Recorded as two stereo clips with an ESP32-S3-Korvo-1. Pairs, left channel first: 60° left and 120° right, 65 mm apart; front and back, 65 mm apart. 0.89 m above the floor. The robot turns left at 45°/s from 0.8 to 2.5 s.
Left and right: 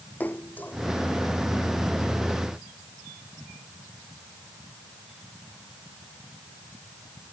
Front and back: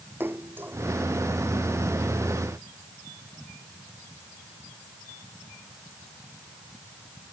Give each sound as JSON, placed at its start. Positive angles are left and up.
{"t": 0.2, "sound": "a splash", "azimuth_deg": 125}